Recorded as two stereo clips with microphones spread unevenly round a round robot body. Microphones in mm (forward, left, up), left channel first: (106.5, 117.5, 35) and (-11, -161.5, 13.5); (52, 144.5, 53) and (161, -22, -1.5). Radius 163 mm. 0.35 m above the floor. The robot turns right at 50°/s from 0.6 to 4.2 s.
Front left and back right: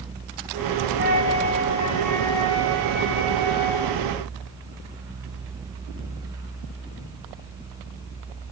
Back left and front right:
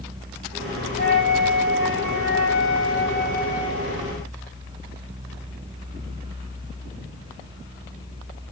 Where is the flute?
100° left, 1.8 m; by 4.0 s 105° right, 1.8 m.